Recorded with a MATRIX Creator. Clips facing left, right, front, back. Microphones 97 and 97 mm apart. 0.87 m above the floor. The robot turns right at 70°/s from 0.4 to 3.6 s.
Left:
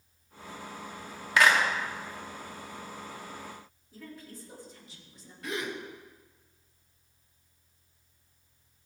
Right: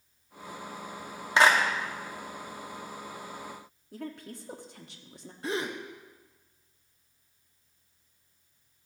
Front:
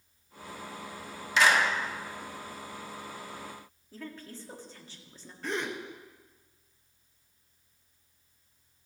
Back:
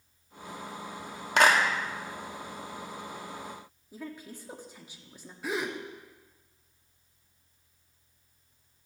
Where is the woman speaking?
105° right, 1.4 m.